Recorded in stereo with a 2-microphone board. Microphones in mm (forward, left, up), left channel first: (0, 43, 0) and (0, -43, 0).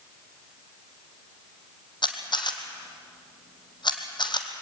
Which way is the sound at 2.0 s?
60° left (ahead or behind).